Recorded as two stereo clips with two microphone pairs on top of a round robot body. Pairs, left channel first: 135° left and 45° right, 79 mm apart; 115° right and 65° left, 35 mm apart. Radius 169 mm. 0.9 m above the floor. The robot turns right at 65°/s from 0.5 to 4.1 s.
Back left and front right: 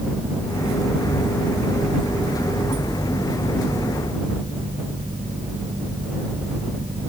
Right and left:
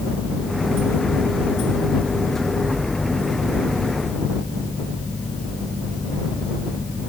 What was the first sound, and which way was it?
Only background noise.